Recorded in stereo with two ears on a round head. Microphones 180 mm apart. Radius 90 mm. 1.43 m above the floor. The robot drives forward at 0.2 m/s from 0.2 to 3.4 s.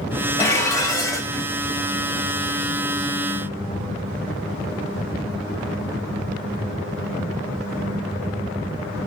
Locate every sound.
0.4 s dishes clattering: 15° left (ahead or behind), 0.9 m